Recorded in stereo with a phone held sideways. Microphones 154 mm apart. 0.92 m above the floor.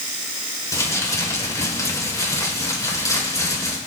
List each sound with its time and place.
0.7 s crumpling: 20° left (ahead or behind), 3 m